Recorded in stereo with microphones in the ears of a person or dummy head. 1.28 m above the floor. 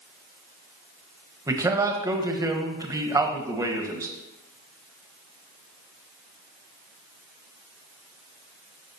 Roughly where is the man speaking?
Centre.